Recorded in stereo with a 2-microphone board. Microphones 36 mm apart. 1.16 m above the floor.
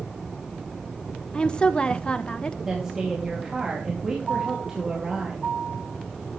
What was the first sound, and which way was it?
A woman speaking, 25° left (ahead or behind).